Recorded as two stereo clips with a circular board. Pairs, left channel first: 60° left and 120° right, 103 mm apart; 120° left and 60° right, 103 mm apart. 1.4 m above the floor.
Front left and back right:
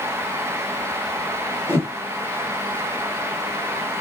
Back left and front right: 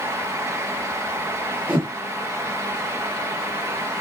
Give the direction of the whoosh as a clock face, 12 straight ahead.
12 o'clock.